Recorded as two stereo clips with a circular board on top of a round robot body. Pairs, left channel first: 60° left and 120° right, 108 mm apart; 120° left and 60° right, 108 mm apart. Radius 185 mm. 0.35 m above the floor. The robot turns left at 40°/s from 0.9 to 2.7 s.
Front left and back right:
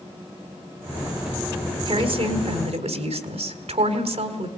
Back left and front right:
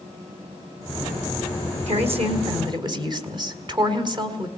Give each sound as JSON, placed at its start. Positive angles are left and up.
{"t": 1.9, "sound": "a woman speaking", "azimuth_deg": -75, "distance_m": 3.5}